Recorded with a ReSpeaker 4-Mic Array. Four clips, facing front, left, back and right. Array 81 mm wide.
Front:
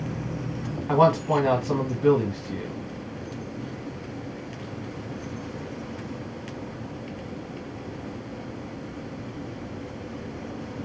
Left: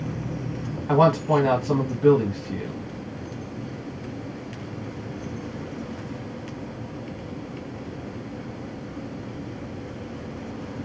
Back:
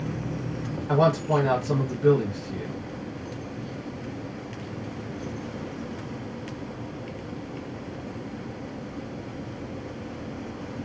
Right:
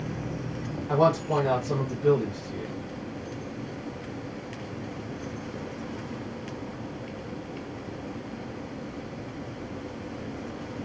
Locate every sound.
0.9 s a man speaking: 65° left, 1.7 m